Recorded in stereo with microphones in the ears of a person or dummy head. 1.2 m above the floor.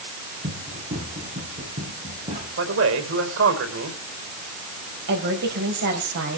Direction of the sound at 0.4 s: 35° right (ahead or behind).